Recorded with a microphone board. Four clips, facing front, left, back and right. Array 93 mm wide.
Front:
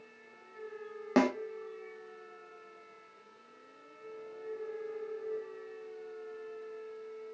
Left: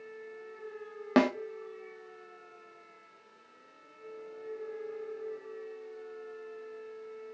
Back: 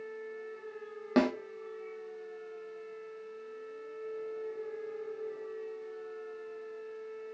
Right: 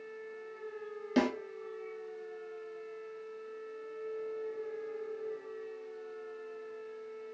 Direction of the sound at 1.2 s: 75° left.